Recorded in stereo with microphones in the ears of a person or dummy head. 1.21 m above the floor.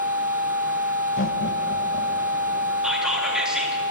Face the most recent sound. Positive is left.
turn(degrees=-5)  # may be behind; listen again after turning